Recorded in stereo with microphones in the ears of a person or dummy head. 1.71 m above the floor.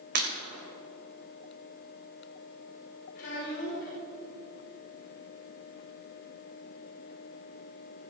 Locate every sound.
0.1 s breaking glass: 50° right (ahead or behind), 3.5 m
3.1 s a child speaking: 65° left (ahead or behind), 3.5 m